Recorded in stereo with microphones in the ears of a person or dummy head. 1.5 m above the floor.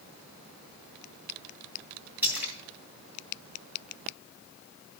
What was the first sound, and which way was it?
A splash, 15° right (ahead or behind).